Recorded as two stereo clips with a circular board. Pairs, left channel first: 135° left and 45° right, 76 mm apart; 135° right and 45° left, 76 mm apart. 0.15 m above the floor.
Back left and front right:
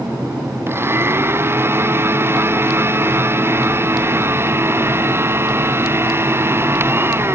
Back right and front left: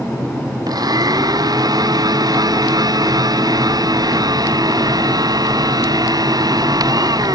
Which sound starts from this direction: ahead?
A blender, at 0.7 s.